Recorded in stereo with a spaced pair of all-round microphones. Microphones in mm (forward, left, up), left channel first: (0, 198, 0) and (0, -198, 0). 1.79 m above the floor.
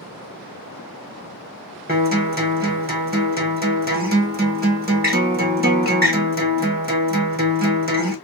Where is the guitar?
25° right (ahead or behind), 1.3 m.